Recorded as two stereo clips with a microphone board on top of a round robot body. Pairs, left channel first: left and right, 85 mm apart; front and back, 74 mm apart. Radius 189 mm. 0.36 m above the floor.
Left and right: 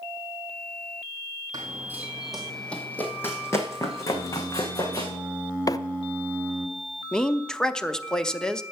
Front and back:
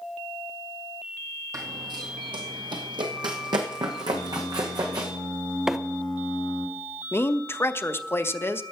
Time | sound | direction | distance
1.5 | running footsteps | 140° right | 0.7 m
4.1 | singing | 15° right | 1.2 m
5.7 | a microwave | 100° left | 0.7 m
7.1 | a woman speaking | 15° left | 0.9 m